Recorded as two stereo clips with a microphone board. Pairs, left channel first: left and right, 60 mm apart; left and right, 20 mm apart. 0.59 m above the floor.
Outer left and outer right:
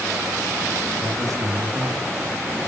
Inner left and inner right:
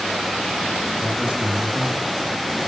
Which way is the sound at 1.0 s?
75° right (ahead or behind).